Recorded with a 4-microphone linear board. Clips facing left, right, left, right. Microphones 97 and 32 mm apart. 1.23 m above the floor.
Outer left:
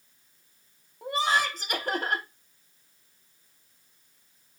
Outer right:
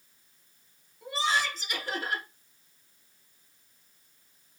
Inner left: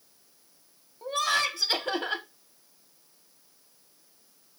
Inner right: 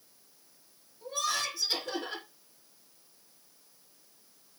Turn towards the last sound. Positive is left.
turn(degrees=50)  # may be behind; listen again after turning